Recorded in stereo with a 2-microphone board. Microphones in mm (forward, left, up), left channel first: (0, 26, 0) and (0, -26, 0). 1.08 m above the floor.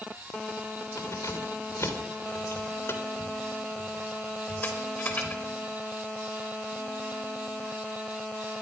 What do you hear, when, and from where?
1.0 s keys jangling: 70° left (ahead or behind), 3 m; by 5.4 s 25° left (ahead or behind), 4 m